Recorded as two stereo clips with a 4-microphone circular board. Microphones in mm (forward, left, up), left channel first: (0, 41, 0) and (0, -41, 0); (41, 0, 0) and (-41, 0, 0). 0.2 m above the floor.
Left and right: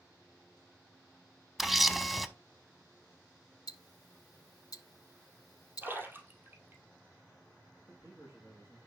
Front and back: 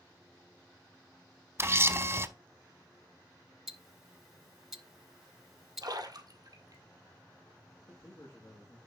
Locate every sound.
1.6 s a camera shutter: 175° right, 0.6 m
3.7 s ticking: 95° left, 0.8 m
5.8 s a splash: 150° right, 1.6 m
7.9 s a man speaking: 20° right, 3 m